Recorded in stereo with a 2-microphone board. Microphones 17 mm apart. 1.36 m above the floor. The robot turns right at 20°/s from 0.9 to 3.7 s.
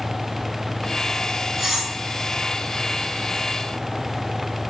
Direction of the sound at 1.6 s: 15° right (ahead or behind).